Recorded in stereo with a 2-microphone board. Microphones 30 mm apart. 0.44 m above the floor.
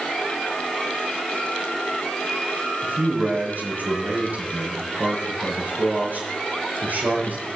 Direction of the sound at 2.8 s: 80° right.